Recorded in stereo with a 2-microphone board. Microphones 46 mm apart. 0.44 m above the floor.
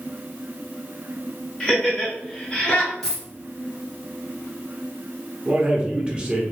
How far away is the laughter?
About 1.5 m.